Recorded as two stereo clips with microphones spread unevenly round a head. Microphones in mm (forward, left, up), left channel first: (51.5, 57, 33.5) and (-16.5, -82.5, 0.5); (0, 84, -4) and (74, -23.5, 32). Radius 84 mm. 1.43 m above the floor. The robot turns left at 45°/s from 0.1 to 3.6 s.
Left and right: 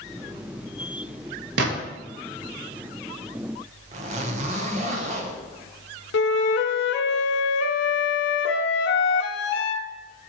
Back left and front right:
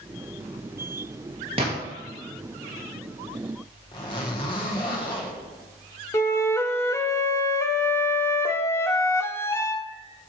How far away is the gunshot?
About 1.4 m.